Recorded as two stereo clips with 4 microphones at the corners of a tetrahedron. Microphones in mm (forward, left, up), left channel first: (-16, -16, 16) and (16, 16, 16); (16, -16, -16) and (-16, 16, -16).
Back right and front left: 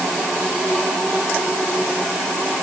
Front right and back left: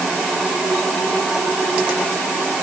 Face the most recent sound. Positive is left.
No sound to turn to.